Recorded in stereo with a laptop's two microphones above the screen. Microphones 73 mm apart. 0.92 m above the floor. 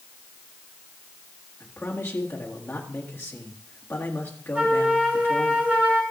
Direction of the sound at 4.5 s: 25° right (ahead or behind).